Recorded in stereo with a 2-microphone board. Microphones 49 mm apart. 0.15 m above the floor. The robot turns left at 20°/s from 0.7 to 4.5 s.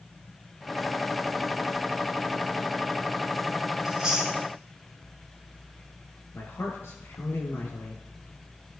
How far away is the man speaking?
About 3 m.